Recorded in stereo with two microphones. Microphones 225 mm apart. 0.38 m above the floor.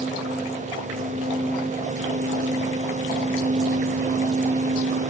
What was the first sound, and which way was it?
Only background noise.